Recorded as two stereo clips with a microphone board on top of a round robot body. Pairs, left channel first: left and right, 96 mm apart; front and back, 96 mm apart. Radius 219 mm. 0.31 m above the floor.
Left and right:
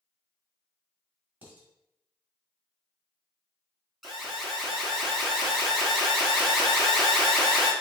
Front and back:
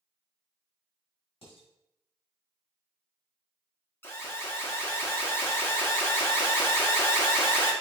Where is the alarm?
5° left, 1.8 m.